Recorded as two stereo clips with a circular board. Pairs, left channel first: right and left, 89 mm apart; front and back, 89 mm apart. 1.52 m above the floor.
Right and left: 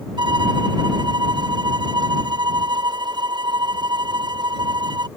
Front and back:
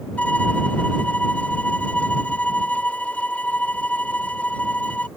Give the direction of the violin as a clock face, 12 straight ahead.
10 o'clock.